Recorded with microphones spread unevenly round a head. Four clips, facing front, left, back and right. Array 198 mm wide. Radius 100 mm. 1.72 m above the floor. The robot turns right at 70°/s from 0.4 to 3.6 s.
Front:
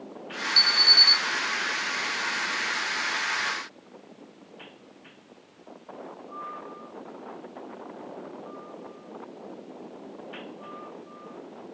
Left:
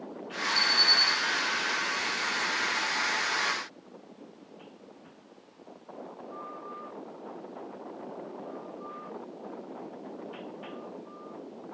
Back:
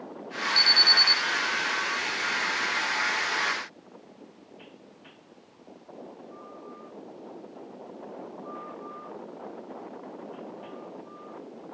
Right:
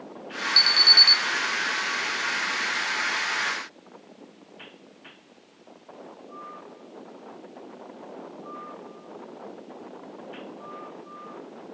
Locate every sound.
0.6 s an alarm: 85° right, 2 m; by 1.2 s 45° right, 2 m